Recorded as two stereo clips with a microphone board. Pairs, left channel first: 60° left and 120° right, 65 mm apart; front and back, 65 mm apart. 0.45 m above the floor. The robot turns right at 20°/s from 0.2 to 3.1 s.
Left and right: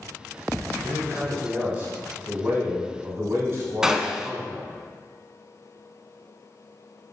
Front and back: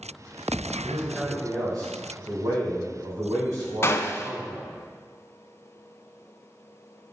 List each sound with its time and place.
0.8 s a man speaking: 155° left, 3 m; by 4.7 s 160° right, 3 m
3.8 s a gunshot: 40° right, 0.5 m